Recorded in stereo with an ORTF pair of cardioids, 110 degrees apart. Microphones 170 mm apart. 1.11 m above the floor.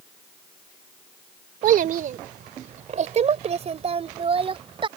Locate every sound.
1.6 s a child speaking: 60° right; by 4.9 s 30° right